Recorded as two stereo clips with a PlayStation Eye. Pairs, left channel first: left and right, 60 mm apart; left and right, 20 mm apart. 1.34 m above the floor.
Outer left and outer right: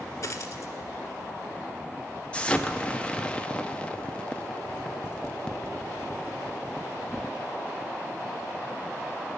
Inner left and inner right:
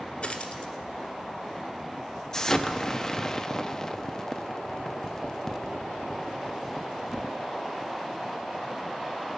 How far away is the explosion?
About 0.7 m.